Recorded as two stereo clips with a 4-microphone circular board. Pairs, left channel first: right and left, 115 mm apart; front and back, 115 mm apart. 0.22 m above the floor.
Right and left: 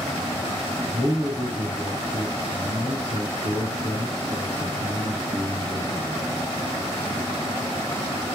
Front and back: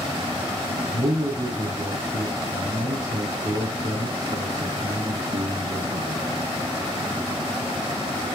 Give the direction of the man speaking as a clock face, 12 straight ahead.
4 o'clock.